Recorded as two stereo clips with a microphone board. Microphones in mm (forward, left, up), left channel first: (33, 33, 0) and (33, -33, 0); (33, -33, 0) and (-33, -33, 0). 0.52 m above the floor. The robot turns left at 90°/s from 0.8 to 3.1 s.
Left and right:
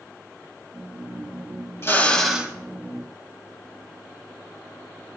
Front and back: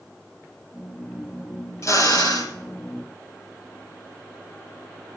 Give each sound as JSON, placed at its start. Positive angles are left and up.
{"t": 1.8, "sound": "a drill", "azimuth_deg": 40, "distance_m": 1.9}